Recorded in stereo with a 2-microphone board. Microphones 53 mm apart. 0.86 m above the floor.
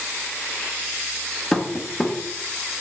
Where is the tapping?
10° left (ahead or behind), 0.5 m.